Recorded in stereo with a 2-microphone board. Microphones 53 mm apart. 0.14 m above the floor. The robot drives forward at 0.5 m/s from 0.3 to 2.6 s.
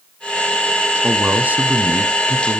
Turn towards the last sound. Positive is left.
turn(degrees=-25)  # may be behind; listen again after turning